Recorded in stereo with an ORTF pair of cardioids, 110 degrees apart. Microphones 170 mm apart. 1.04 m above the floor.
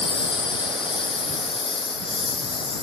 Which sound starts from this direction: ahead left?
A lawn mower, at 0.0 s.